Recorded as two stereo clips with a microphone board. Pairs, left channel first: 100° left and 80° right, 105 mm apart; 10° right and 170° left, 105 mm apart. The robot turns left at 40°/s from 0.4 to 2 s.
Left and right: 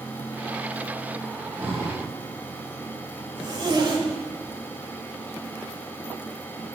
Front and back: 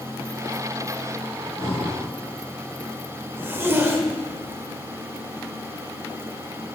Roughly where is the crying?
I don't hear crying.